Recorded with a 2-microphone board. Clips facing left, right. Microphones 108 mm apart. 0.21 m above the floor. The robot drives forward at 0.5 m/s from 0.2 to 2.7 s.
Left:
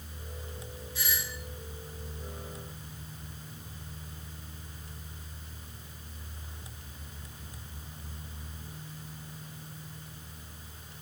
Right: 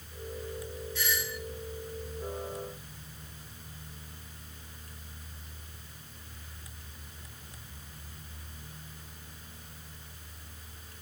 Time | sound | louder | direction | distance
0.9 | a doorbell | right 3 dB | 15° left (ahead or behind) | 2 m